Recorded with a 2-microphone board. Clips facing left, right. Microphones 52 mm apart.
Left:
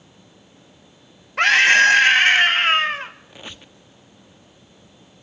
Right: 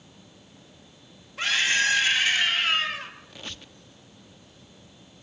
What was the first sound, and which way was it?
A scream, 70° left (ahead or behind).